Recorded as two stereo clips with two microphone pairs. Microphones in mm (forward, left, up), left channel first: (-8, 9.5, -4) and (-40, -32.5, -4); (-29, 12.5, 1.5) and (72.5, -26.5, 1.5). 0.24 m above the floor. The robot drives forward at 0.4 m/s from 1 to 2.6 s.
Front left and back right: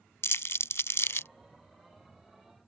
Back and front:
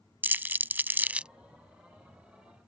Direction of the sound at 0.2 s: 45° left.